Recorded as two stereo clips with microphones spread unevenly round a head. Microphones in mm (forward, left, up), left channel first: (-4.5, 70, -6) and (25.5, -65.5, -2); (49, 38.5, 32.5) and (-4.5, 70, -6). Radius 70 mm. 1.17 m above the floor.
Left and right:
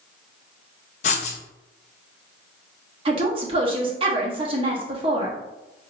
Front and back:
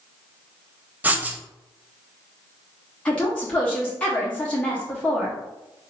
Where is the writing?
130° left, 0.6 m.